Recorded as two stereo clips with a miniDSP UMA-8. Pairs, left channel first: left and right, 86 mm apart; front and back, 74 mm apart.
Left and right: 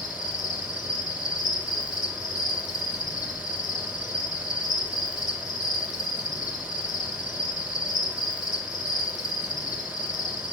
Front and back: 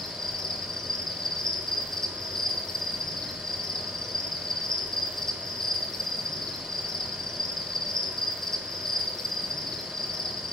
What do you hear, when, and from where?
0.0 s an insect: 80° left, 0.9 m